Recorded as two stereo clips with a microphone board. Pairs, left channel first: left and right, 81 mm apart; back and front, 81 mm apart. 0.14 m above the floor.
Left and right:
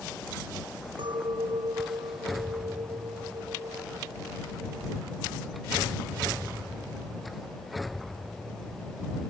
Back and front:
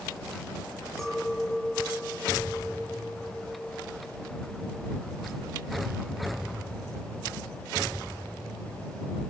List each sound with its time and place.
1.0 s a clink: 95° right